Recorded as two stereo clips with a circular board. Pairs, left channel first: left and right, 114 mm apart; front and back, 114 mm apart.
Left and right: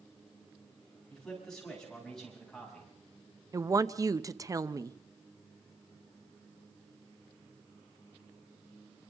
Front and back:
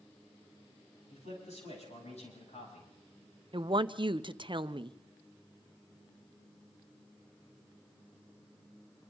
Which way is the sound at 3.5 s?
145° right.